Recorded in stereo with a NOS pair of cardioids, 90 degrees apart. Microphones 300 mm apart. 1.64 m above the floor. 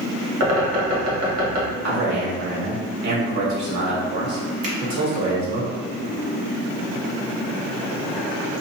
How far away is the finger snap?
About 1.7 m.